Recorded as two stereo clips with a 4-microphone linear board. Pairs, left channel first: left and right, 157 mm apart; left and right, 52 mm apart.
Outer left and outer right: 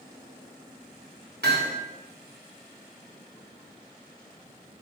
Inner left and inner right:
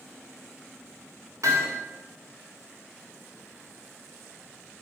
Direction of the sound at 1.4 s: 80° right.